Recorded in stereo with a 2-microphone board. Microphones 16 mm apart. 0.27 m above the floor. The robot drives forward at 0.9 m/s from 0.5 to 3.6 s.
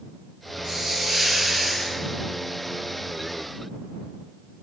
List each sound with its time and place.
0.6 s a hiss: 55° right (ahead or behind), 1.9 m; by 2.0 s 35° right (ahead or behind), 2.5 m